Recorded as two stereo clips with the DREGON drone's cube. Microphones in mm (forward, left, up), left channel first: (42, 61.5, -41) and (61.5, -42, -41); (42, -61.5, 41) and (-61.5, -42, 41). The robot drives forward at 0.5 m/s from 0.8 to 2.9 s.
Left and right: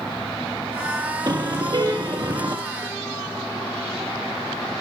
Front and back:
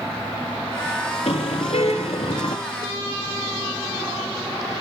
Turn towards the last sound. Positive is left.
turn(degrees=-35)